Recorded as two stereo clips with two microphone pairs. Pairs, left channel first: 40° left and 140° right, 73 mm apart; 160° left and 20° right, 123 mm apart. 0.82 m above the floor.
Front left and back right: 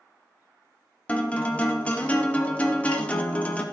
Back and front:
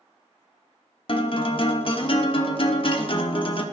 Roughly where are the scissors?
No scissors in this recording.